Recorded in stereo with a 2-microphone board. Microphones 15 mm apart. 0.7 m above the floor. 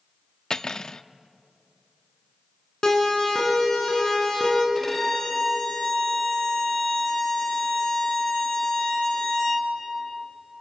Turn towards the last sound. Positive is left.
turn(degrees=25)  # may be behind; listen again after turning